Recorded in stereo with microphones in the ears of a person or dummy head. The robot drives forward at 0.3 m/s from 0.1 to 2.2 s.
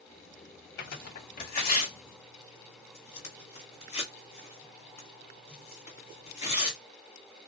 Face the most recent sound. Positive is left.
turn(degrees=35)  # may be behind; listen again after turning